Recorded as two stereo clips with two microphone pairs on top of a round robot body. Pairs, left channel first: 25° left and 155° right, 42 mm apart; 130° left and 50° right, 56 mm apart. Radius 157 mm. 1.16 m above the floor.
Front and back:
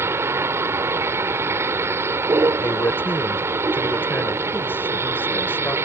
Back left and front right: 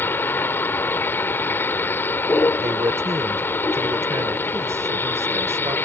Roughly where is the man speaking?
Ahead.